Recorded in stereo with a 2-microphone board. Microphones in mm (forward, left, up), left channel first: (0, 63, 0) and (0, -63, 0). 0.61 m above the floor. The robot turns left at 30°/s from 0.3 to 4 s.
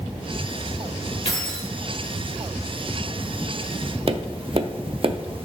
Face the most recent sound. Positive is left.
turn(degrees=-45)  # may be behind; listen again after turning